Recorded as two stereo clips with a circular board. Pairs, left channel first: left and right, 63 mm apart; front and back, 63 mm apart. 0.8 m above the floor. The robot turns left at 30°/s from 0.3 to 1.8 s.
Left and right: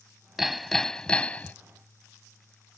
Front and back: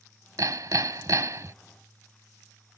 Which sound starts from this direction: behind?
Hammering, at 0.4 s.